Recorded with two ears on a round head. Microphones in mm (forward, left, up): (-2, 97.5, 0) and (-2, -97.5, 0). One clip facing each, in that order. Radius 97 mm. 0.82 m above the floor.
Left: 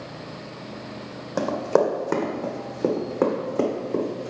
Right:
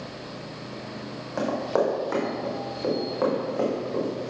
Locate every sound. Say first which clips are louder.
1.4 s running footsteps: left 3 dB; 55° left (ahead or behind), 1.9 m; by 4.3 s 45° left (ahead or behind), 3 m